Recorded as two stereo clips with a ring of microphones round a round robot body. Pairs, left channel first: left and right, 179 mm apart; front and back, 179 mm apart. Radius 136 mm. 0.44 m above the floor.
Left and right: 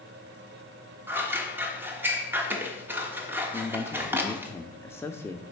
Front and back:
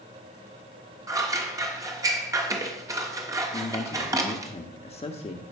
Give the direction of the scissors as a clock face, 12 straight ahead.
5 o'clock.